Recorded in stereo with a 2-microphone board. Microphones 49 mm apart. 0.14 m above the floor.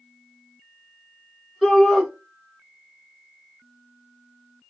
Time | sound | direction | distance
1.6 | a shout | 5° right (ahead or behind) | 1.5 m